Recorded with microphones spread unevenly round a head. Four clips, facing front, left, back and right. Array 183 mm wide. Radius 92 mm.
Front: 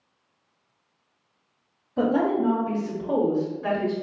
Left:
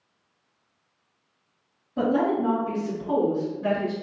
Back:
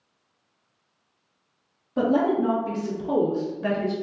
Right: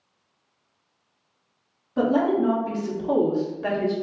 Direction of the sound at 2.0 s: 170° right.